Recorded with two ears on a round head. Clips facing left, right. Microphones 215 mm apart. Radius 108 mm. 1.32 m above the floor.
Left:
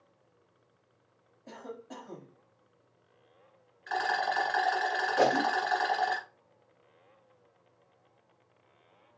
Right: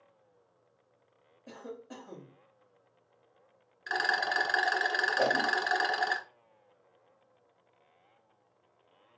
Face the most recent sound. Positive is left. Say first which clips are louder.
# left 4 dB
turn(degrees=70)  # may be behind; listen again after turning